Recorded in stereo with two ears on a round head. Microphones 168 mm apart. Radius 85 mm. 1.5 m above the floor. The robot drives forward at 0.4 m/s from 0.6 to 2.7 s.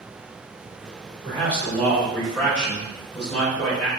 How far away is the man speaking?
About 1.7 m.